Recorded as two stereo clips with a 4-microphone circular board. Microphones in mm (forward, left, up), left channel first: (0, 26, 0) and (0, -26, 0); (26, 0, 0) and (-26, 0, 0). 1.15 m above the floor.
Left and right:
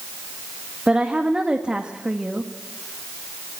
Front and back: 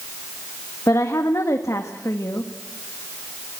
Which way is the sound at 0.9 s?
15° right.